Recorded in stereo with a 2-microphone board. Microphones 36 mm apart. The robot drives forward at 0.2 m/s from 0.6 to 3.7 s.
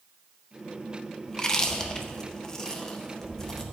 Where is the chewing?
20° left (ahead or behind), 0.6 m; by 3.6 s 15° left (ahead or behind), 0.7 m.